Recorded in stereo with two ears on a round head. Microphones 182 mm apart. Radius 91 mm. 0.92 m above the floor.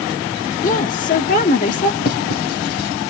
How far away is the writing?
About 2.5 m.